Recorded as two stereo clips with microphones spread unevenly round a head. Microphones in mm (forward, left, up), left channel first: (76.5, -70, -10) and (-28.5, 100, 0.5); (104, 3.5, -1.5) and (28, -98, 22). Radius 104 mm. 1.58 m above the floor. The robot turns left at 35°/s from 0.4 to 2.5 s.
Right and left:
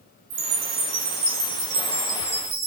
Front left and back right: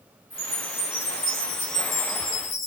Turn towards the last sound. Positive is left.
turn(degrees=60)